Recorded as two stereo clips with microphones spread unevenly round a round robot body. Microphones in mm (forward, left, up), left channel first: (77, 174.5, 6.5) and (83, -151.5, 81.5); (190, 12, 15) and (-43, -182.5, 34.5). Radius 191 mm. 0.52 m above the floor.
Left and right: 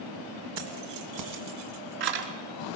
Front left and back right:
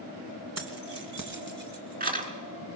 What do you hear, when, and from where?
0.6 s keys jangling: 100° right, 2.5 m; by 2.3 s 75° right, 4 m